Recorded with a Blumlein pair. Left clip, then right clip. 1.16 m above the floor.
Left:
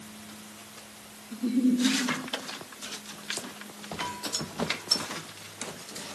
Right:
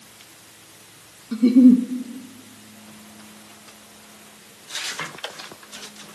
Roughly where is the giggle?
Ahead right.